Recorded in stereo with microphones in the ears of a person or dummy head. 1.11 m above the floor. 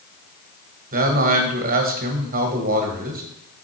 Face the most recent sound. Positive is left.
turn(degrees=-45)  # may be behind; listen again after turning